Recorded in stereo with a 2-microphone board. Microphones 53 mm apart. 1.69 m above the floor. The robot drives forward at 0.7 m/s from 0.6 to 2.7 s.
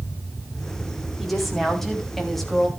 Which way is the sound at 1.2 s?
5° left (ahead or behind).